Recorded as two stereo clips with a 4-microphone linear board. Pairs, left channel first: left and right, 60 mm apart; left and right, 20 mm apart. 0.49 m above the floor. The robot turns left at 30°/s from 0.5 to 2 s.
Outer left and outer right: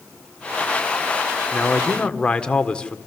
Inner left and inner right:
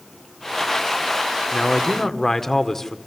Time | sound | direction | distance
1.5 | a man speaking | 25° left (ahead or behind) | 1.7 m